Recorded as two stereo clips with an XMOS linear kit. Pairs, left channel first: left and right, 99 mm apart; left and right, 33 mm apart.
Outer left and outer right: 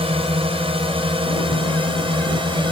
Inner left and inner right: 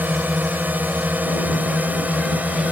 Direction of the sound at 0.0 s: 75° right (ahead or behind).